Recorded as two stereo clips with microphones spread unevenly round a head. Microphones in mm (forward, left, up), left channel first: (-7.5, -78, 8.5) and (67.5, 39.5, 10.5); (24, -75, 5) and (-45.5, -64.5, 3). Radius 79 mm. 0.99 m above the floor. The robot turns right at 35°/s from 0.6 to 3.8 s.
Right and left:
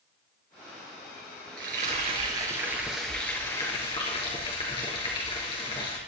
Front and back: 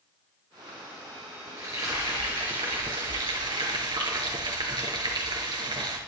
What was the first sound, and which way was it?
Frying, 95° left.